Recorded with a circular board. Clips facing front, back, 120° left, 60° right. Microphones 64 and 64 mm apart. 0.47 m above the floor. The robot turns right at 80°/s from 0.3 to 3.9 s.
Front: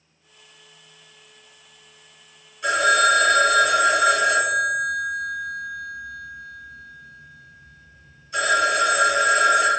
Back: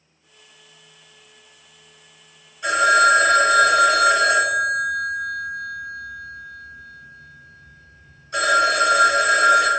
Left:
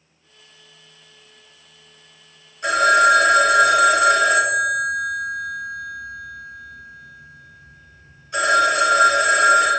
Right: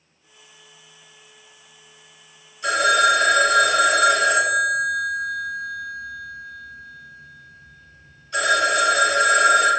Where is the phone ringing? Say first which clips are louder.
Back 3 dB, left 3 dB; 90° left, 1.4 m; by 9.7 s 170° right, 1.4 m.